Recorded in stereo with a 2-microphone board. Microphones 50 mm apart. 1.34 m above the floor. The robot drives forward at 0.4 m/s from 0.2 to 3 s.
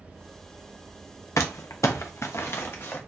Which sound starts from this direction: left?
Crumpling, at 1.4 s.